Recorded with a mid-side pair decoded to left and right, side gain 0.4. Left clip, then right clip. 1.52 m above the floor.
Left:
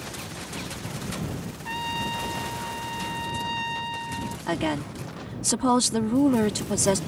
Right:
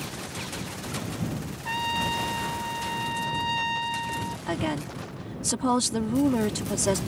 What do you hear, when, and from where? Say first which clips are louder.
1.6 s a trumpet: right 2 dB; 15° right
4.5 s a woman speaking: left 4 dB; 25° left